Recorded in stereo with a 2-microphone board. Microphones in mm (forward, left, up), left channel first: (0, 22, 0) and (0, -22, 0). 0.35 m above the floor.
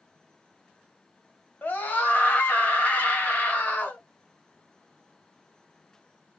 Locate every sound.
1.6 s a scream: 45° left (ahead or behind), 1.6 m